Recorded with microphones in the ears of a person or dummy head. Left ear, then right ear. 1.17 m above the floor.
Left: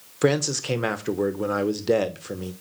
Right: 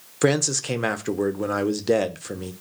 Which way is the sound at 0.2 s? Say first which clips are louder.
Right 1 dB; 5° right (ahead or behind).